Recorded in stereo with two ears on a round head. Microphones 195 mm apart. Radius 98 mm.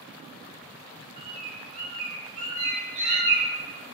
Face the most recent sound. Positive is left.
turn(degrees=-55)  # may be behind; listen again after turning